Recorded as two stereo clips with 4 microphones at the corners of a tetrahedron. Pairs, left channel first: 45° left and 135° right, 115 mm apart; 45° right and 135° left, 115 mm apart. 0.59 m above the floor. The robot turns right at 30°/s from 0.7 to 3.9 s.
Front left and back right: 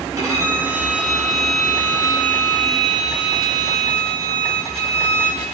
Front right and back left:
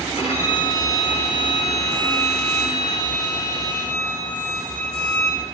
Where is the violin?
75° right, 7 m; by 5.4 s 25° left, 7 m.